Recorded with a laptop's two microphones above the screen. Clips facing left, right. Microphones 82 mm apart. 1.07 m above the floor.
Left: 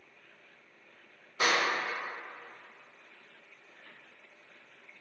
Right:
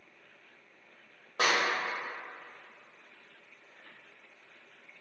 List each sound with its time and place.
1.4 s a clap: 70° right (ahead or behind), 1.1 m